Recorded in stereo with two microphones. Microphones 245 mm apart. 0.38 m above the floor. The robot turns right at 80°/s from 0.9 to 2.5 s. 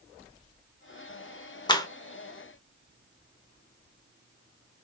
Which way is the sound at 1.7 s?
15° left (ahead or behind).